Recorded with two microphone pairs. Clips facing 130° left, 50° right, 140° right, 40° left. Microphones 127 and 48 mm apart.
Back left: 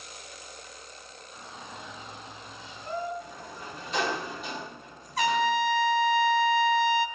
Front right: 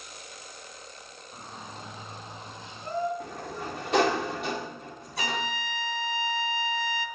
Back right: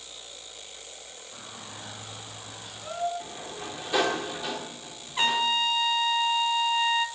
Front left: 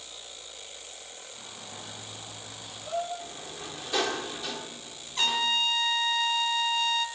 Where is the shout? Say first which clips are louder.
Front right 1 dB, back right 2 dB; 95° right, 8.5 m; by 3.1 s 85° right, 7.5 m.